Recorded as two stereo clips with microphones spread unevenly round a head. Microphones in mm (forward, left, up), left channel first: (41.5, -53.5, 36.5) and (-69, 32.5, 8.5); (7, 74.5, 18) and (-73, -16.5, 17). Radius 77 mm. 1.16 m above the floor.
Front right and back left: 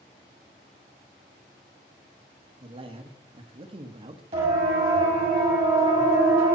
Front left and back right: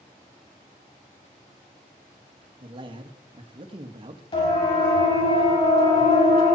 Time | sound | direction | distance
2.6 | a man speaking | 175° right | 2 m
4.3 | a siren | 90° left | 8 m